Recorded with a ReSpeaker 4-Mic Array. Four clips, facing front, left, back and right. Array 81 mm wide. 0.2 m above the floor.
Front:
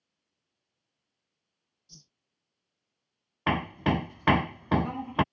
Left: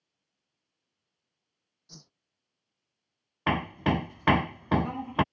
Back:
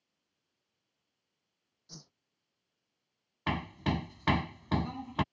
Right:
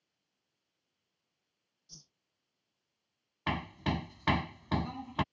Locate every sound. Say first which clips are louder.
1.9 s a whoosh: left 9 dB, back 7 dB; 140° left
3.5 s hammering: left 7 dB, front 6 dB; 50° left